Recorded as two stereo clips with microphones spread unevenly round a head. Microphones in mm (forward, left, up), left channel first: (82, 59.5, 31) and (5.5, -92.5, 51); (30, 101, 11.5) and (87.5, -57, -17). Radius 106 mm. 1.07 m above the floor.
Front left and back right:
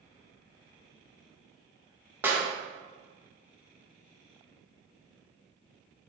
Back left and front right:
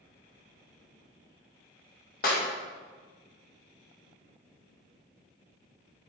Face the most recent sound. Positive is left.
turn(degrees=160)